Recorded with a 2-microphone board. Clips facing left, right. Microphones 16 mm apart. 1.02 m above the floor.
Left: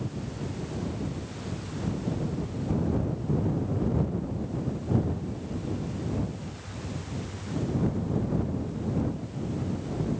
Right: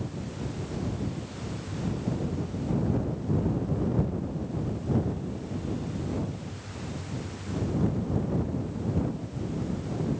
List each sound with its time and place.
Only background noise.